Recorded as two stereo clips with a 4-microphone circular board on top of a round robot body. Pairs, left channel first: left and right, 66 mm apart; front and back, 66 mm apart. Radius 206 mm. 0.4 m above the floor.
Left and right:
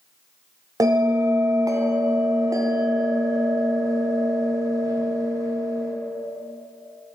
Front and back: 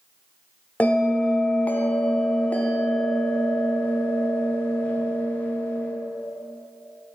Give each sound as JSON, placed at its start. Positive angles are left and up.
{"t": 0.8, "sound": "a bell", "azimuth_deg": -65, "distance_m": 1.0}